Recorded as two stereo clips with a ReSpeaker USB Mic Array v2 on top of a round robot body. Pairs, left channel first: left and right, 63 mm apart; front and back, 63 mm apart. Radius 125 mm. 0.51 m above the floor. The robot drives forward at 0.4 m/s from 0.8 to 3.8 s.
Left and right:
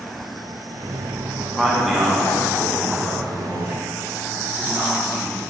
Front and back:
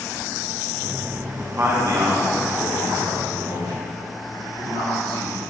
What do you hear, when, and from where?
1.4 s a man speaking: straight behind, 0.8 m